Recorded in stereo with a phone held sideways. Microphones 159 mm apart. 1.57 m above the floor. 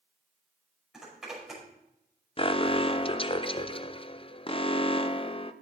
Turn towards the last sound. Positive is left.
turn(degrees=35)  # may be behind; listen again after turning